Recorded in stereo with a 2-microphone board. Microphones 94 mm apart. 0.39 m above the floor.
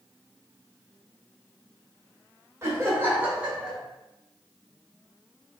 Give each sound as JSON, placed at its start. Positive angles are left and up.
{"t": 2.6, "sound": "laughter", "side_deg": -30, "distance_m": 1.7}